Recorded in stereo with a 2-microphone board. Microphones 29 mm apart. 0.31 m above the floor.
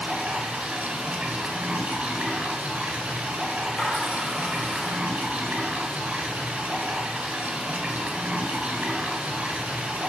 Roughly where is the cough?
I don't hear a cough.